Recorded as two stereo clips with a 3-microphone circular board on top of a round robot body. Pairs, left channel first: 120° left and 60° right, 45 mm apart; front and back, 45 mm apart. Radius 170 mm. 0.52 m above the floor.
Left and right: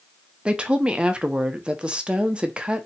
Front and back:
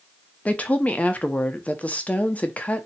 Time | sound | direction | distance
0.5 | a woman speaking | 15° right | 0.8 m